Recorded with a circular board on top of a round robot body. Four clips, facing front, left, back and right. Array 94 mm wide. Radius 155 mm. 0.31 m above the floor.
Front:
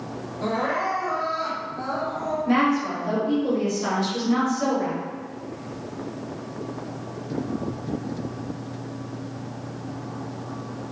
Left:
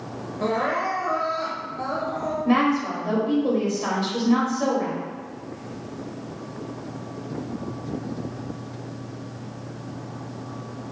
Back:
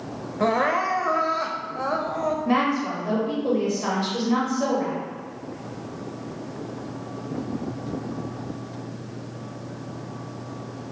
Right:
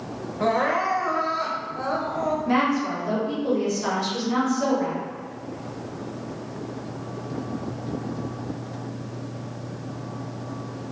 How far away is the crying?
About 0.6 m.